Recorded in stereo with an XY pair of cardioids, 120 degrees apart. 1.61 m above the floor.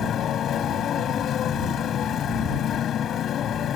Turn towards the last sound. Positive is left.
turn(degrees=50)